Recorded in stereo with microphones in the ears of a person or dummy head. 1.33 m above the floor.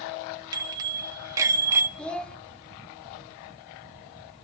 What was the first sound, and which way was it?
A bicycle bell, 25° right (ahead or behind).